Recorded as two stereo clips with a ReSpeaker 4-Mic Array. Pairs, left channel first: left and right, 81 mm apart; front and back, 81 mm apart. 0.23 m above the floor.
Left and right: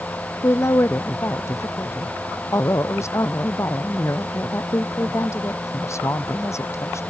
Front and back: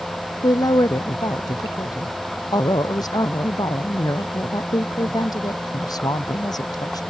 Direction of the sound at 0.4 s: 35° left.